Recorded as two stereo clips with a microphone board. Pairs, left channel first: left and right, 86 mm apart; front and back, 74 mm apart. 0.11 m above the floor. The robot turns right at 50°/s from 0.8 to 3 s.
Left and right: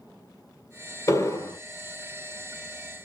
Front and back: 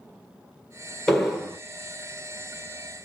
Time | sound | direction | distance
1.1 | an explosion | 75° left | 1.1 m